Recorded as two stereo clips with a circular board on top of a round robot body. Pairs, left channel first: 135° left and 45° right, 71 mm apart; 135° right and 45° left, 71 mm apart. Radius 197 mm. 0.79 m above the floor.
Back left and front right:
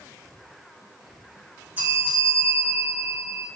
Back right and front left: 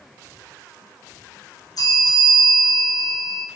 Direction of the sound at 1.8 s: 110° right.